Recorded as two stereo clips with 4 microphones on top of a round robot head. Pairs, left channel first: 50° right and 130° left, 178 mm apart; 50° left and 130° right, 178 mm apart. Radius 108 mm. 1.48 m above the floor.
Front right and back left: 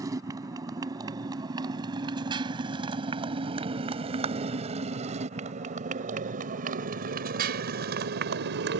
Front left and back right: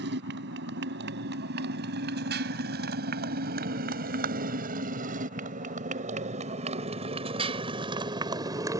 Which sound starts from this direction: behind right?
A motorcycle, at 0.0 s.